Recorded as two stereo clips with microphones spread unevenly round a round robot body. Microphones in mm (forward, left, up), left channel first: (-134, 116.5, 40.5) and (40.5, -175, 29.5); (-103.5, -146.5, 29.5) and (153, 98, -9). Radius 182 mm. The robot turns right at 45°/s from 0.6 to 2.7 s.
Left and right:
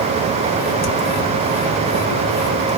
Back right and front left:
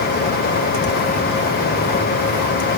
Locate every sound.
Only background noise.